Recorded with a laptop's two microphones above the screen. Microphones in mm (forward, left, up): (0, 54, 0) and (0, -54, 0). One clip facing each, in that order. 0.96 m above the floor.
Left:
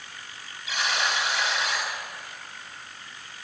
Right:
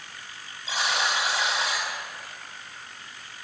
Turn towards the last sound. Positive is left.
turn(degrees=-35)  # may be behind; listen again after turning